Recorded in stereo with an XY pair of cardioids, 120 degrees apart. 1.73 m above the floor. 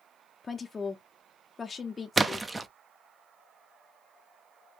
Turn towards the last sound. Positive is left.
turn(degrees=-15)